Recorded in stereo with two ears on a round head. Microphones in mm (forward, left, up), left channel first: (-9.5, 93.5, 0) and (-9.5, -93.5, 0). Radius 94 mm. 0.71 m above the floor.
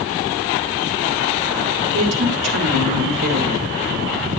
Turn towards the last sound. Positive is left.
turn(degrees=-60)  # may be behind; listen again after turning